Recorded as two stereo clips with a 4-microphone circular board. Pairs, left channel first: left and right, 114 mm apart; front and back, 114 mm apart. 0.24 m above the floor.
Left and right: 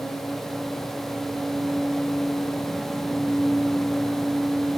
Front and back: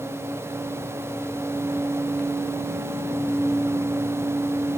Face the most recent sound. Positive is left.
No sound to turn to.